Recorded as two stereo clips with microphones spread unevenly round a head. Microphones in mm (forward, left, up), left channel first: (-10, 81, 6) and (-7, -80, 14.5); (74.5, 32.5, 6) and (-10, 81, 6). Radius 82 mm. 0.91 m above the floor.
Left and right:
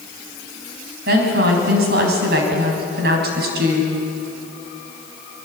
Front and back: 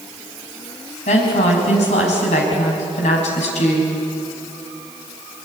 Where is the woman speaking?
55° right, 5.5 m.